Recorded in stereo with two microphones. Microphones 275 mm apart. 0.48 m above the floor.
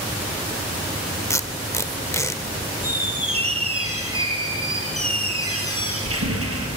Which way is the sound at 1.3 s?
10° left (ahead or behind).